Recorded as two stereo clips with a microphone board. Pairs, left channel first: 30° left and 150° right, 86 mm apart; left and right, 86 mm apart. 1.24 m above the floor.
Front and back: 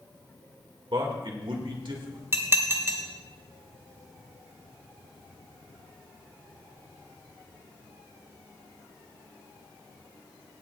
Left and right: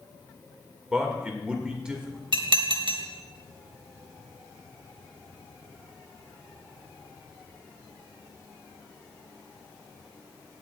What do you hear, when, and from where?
0.9 s a man speaking: 170° right, 1.9 m
2.3 s dishes clattering: 90° right, 1.2 m